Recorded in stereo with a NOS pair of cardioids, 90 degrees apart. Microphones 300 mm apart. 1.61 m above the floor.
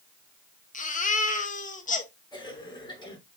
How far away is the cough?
About 6.5 m.